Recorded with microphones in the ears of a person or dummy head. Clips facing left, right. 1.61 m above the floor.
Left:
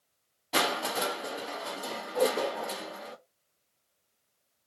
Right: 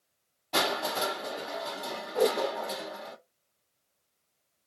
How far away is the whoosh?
About 1.1 m.